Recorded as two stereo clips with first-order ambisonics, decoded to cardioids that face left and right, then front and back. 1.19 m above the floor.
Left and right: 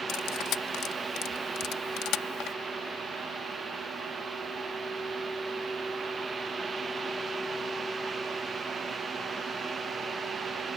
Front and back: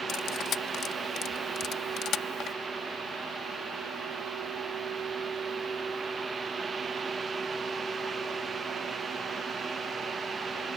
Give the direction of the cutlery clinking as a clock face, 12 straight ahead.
10 o'clock.